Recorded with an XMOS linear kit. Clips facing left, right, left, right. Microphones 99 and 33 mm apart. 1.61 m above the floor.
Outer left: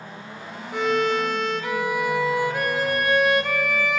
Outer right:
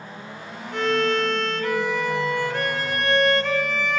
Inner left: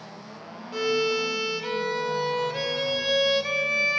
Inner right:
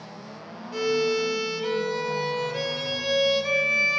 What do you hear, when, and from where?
0.7 s a violin: 5° left (ahead or behind), 0.8 m